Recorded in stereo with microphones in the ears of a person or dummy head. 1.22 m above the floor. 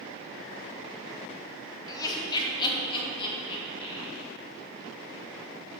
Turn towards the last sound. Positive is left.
turn(degrees=30)  # may be behind; listen again after turning